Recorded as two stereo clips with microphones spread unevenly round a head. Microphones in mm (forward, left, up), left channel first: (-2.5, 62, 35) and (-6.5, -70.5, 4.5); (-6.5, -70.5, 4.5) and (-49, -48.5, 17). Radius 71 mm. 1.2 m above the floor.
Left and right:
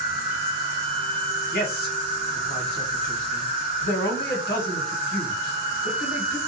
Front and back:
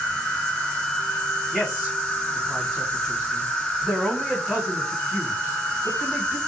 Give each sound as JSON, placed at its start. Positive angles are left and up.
{"t": 0.0, "sound": "an insect", "azimuth_deg": -105, "distance_m": 1.0}
{"t": 1.5, "sound": "a man speaking", "azimuth_deg": 65, "distance_m": 1.2}